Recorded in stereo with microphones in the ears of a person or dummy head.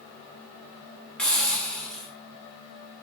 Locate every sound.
1.2 s a hiss: 5° left (ahead or behind), 2.5 m